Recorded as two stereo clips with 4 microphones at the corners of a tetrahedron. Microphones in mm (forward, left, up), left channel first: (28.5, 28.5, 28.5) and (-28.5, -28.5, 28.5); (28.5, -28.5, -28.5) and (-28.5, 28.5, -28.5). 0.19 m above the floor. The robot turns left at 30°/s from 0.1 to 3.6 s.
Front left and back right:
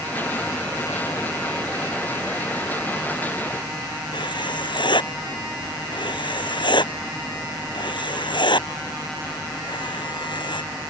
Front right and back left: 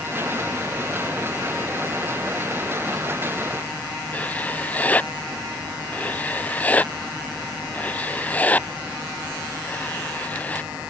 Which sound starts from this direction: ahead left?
Writing, at 4.1 s.